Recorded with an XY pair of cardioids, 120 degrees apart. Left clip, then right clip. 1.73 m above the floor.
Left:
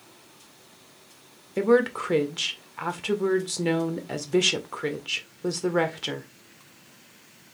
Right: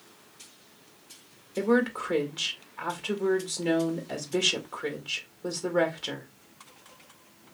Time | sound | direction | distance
1.6 | a woman speaking | 35° left | 1.5 m